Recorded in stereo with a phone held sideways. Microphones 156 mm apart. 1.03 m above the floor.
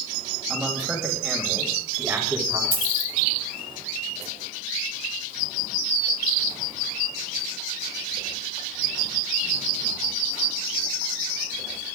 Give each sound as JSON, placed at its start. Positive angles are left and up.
{"t": 0.5, "sound": "a man speaking", "side_deg": 0, "distance_m": 6.0}
{"t": 2.7, "sound": "a dropped coin", "side_deg": -65, "distance_m": 4.5}